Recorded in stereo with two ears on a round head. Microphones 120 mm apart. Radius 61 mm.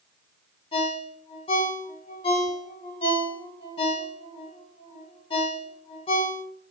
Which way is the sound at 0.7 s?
40° left (ahead or behind).